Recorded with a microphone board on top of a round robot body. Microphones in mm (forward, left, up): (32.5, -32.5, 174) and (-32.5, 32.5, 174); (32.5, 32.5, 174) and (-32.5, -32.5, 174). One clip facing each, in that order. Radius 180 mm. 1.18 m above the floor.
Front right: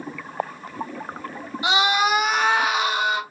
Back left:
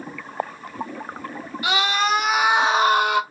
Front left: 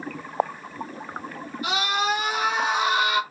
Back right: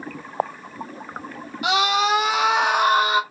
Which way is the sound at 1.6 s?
115° right.